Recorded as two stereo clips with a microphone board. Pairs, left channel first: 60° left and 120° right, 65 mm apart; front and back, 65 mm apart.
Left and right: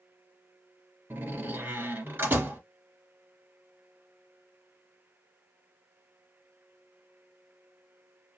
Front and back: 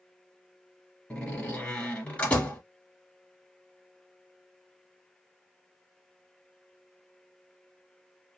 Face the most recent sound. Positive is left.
turn(degrees=-70)